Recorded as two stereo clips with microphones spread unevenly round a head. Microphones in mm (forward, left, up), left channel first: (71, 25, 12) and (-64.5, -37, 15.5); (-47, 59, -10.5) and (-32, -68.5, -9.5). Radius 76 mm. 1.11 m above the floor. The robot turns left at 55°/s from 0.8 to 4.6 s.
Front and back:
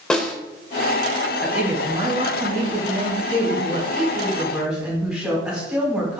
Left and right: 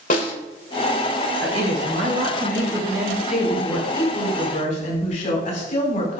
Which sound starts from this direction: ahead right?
A woman speaking, at 1.4 s.